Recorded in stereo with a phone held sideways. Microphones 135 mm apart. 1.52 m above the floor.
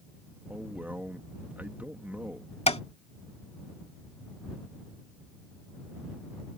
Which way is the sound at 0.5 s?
15° right (ahead or behind).